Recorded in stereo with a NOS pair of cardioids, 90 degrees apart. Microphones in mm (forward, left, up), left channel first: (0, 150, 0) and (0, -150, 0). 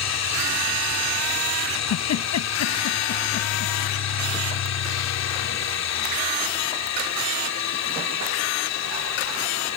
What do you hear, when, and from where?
0.0 s a machine running: 60° left
1.7 s a giggle: 65° left